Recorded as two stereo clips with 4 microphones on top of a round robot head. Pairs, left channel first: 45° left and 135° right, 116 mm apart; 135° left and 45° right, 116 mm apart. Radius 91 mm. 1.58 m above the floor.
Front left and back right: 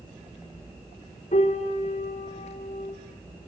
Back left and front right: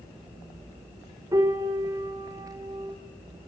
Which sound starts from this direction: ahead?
A piano, at 1.3 s.